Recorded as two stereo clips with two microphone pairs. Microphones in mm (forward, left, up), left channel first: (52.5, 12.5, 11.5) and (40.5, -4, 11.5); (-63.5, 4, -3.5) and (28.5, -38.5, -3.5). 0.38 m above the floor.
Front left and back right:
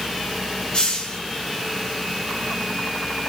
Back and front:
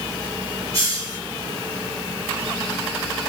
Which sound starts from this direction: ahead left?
A hiss, at 0.7 s.